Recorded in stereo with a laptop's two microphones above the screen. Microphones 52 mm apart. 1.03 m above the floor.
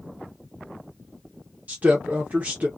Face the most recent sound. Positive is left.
turn(degrees=-30)  # may be behind; listen again after turning